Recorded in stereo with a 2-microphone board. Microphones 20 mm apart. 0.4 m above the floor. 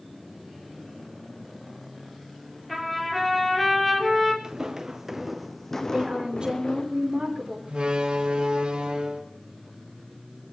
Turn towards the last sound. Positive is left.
turn(degrees=-75)  # may be behind; listen again after turning